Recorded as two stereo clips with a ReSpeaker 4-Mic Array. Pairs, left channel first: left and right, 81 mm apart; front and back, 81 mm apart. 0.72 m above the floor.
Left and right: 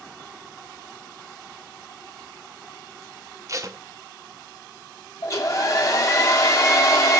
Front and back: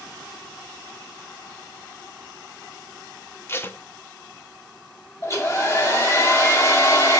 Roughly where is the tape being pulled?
Ahead right.